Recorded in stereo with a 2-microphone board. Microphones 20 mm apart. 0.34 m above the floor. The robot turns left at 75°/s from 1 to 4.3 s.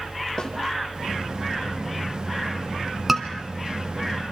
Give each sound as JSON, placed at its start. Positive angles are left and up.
{"t": 0.4, "sound": "a snare drum", "side_deg": 45, "distance_m": 3.5}
{"t": 3.1, "sound": "a scream", "side_deg": -10, "distance_m": 3.0}